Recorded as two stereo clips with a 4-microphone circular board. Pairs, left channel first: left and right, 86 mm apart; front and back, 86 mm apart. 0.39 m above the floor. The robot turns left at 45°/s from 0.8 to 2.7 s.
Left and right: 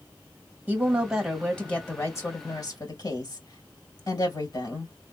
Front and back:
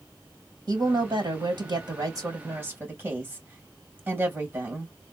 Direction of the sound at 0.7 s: 160° right.